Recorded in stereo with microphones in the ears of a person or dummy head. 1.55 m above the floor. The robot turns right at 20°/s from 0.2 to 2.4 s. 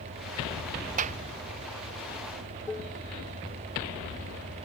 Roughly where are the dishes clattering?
Centre.